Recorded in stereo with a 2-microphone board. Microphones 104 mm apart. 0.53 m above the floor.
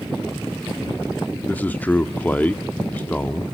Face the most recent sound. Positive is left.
turn(degrees=15)  # may be behind; listen again after turning